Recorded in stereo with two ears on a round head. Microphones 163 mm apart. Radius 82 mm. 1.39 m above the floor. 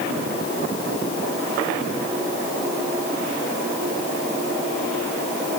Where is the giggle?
No giggle in this recording.